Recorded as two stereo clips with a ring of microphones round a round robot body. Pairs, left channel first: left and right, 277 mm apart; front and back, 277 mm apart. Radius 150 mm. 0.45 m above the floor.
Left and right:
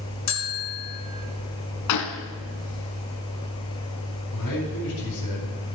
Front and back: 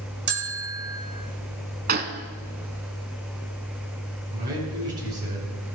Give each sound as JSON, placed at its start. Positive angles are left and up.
{"t": 0.3, "sound": "a bell", "azimuth_deg": 130, "distance_m": 1.6}
{"t": 1.9, "sound": "a gunshot", "azimuth_deg": 120, "distance_m": 0.8}
{"t": 4.3, "sound": "a man speaking", "azimuth_deg": 115, "distance_m": 4.0}